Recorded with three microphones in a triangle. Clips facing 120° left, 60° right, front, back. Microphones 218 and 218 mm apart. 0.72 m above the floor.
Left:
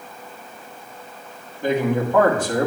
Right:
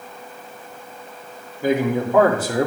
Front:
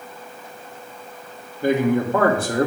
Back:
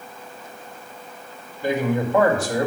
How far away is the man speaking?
About 1.7 m.